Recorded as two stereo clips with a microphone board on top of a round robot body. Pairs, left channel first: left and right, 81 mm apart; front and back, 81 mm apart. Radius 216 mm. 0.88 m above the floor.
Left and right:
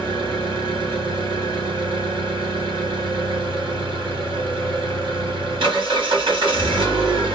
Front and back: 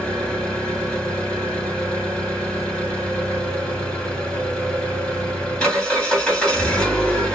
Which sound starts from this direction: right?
An engine running, at 0.0 s.